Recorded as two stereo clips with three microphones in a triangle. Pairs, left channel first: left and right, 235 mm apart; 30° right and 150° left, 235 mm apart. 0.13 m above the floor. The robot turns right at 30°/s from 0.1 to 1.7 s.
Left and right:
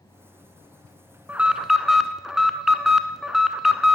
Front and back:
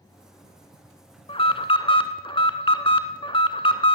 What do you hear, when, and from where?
1.3 s an alarm: 15° right, 0.9 m; by 4.0 s 5° right, 0.9 m